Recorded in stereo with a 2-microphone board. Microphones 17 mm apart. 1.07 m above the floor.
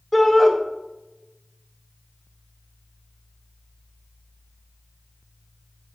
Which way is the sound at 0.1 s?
10° left (ahead or behind).